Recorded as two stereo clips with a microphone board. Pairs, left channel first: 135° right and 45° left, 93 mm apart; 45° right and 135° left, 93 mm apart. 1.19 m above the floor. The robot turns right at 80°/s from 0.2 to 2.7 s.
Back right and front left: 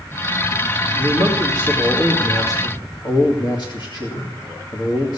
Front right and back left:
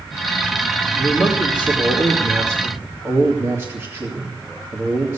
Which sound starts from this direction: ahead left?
A man speaking, at 1.0 s.